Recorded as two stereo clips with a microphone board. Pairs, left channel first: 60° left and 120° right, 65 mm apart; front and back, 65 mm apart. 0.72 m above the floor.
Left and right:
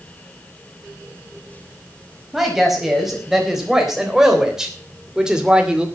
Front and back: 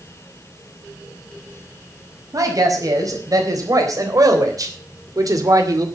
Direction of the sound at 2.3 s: 155° left.